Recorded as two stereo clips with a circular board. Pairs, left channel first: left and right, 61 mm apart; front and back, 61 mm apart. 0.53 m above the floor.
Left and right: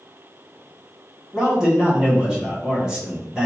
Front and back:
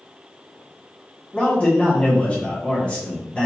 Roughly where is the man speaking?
Ahead right.